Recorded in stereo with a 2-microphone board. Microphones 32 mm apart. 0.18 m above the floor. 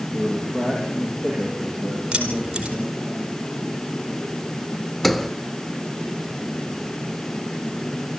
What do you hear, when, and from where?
0.1 s a man speaking: 10° left (ahead or behind), 6.5 m; by 3.1 s 20° left (ahead or behind), 8 m
2.1 s keys jangling: 30° right (ahead or behind), 4.5 m
5.0 s a sliding door: 10° left (ahead or behind), 0.8 m